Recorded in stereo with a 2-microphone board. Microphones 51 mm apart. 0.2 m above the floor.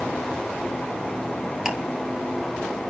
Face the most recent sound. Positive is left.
turn(degrees=-10)  # may be behind; listen again after turning